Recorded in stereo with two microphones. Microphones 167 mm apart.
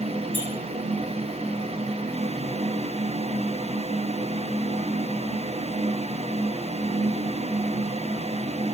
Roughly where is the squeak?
Right.